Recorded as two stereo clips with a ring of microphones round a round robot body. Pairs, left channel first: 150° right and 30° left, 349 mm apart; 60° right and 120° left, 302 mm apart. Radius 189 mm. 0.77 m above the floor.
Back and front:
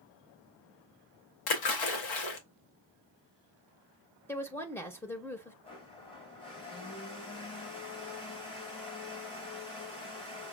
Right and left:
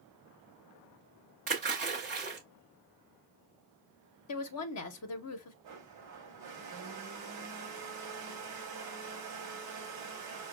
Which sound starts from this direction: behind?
A splash, at 1.5 s.